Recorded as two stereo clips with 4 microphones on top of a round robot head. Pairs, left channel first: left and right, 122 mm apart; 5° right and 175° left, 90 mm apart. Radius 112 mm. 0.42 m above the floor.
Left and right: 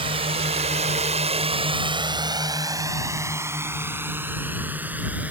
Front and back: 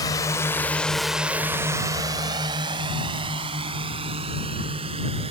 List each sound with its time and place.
0.0 s a drone: 50° right; by 5.3 s 170° right